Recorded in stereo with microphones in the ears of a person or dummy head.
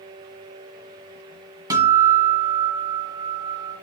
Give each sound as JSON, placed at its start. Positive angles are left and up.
{"t": 1.7, "sound": "a guitar", "side_deg": -25, "distance_m": 1.8}